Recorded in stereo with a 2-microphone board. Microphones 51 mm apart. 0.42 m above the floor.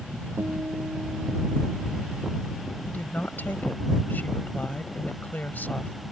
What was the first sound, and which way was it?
A guitar, 80° right.